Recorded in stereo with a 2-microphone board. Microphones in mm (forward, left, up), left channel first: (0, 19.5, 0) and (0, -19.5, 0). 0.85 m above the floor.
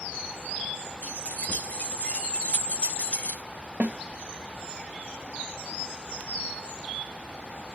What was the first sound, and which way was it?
Keys jangling, 40° left (ahead or behind).